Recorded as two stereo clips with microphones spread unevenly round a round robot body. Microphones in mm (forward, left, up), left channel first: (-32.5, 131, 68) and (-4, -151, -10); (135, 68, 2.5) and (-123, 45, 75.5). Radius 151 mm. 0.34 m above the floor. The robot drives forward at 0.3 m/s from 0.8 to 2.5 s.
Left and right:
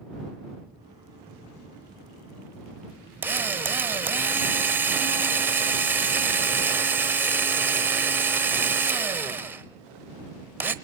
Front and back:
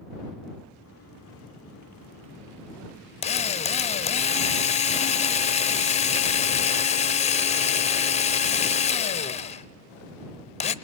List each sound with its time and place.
3.2 s a drill: 20° right, 0.8 m